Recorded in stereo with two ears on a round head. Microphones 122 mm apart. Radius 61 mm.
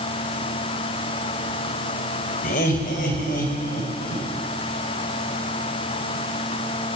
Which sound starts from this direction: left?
Laughter, at 2.4 s.